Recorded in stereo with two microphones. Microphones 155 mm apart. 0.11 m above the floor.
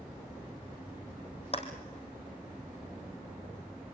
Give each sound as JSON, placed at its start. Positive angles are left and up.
{"t": 1.5, "sound": "a clap", "side_deg": 45, "distance_m": 3.0}